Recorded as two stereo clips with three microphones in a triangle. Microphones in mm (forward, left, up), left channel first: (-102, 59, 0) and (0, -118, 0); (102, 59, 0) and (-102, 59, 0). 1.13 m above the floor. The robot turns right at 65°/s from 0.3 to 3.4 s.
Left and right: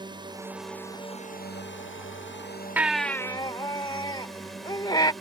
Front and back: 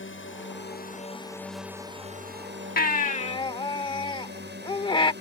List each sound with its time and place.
0.0 s a drone: 10° left; by 5.2 s 150° right
2.8 s a baby crying: 20° left; by 5.1 s 60° left